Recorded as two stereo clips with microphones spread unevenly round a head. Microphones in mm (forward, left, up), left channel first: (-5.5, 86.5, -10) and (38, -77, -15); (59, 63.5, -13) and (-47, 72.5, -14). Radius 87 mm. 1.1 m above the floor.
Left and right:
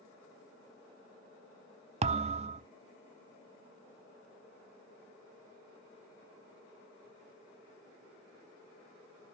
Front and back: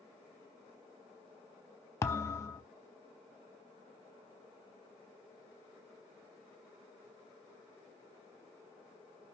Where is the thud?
55° right, 0.6 m.